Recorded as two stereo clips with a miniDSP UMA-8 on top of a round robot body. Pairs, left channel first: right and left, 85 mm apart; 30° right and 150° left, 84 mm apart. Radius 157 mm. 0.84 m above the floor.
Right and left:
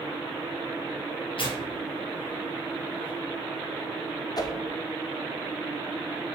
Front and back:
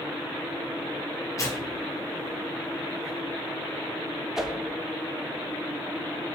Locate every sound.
1.4 s tearing paper: 80° right, 2.5 m
4.4 s a whoosh: 125° right, 1.1 m